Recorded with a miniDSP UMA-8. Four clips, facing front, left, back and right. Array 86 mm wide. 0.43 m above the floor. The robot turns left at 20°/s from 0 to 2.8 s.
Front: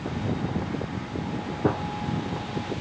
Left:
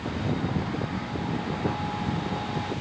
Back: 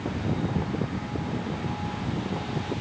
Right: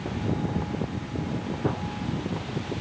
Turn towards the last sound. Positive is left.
turn(degrees=-35)